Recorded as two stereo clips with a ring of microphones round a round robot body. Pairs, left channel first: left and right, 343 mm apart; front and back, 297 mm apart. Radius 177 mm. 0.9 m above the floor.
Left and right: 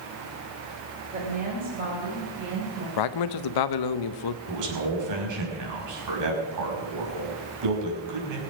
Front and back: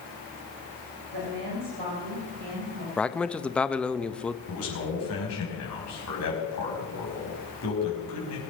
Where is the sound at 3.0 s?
85° left, 0.8 m.